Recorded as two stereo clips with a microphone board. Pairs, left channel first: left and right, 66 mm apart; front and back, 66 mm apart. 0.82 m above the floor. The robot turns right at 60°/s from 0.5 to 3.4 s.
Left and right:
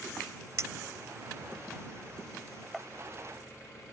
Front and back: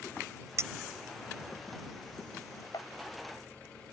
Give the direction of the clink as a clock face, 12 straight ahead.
5 o'clock.